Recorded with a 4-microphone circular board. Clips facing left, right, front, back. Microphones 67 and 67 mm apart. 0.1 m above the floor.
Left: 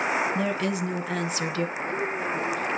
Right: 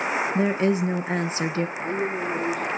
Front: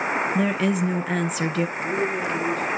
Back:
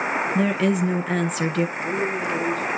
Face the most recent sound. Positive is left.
turn(degrees=-65)